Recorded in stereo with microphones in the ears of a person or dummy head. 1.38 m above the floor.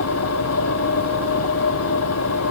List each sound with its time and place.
0.0 s an engine running: 85° left